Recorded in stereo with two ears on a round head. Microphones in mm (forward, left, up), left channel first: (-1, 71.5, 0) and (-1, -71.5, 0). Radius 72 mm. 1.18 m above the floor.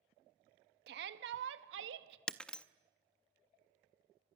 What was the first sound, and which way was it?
A shout, 70° right (ahead or behind).